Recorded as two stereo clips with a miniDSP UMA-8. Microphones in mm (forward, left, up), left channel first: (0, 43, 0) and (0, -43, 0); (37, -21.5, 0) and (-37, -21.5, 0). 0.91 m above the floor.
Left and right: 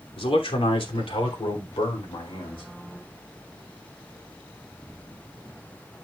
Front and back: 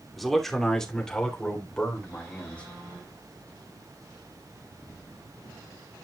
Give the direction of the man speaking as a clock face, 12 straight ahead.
9 o'clock.